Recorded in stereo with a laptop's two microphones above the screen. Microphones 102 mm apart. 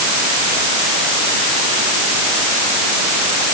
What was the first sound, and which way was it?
Only background noise.